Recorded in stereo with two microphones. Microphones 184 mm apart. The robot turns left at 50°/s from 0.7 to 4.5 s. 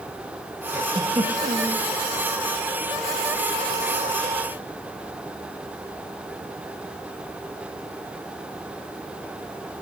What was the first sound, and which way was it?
A giggle, 10° right.